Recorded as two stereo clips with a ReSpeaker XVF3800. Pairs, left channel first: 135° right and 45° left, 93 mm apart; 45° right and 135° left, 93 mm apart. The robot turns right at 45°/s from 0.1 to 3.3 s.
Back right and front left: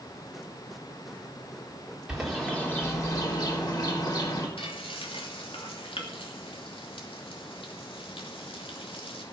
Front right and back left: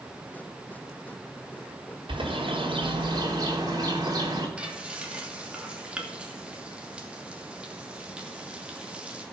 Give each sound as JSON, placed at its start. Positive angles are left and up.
{"t": 2.1, "sound": "a bird", "azimuth_deg": 125, "distance_m": 3.5}
{"t": 4.6, "sound": "frying", "azimuth_deg": -145, "distance_m": 2.5}